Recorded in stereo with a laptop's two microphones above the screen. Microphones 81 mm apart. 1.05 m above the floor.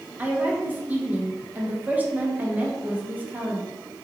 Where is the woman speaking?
20° right (ahead or behind), 0.7 m.